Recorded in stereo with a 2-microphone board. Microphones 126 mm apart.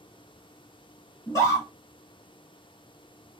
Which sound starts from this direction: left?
A scream, at 1.3 s.